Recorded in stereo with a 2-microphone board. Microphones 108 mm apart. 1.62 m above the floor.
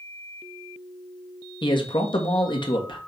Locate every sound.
1.6 s a man speaking: 45° left (ahead or behind), 1.5 m